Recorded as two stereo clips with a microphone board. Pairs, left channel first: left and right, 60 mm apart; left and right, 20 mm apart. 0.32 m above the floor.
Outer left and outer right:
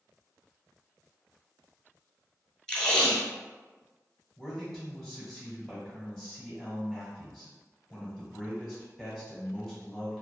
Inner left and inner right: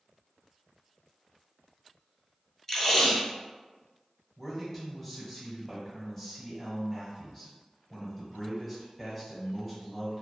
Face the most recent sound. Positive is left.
turn(degrees=10)  # may be behind; listen again after turning